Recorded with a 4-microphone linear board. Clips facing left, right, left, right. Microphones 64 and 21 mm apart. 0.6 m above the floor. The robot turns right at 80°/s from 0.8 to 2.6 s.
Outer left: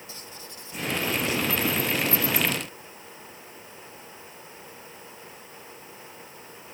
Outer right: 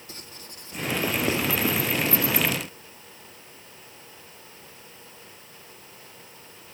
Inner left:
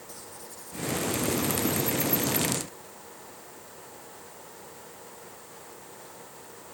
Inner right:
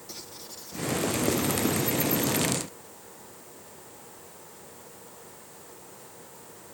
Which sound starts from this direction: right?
Writing, at 0.1 s.